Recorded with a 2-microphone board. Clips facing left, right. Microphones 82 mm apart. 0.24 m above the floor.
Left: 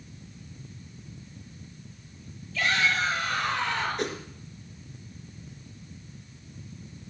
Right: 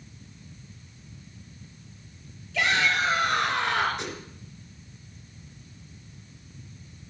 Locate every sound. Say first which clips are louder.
2.5 s a shout: right 2 dB; 75° right (ahead or behind), 5.5 m; by 4.1 s 65° right (ahead or behind), 3.5 m
4.0 s a whoosh: left 5 dB; 45° left (ahead or behind), 3 m